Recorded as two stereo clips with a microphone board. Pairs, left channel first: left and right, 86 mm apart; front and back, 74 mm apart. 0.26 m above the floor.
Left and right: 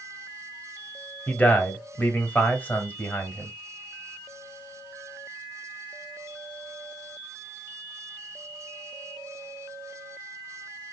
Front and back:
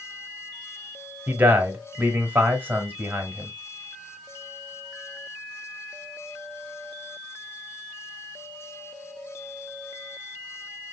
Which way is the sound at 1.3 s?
140° left.